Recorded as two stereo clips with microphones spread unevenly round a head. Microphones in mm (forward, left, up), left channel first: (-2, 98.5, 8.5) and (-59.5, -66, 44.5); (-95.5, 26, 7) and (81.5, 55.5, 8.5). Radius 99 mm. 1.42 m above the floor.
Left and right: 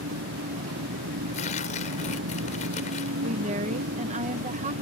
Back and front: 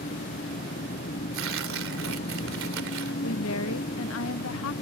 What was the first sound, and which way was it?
An engine running, 120° right.